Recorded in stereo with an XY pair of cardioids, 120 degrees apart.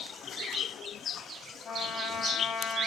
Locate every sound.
1.6 s a trumpet: 45° left, 3.5 m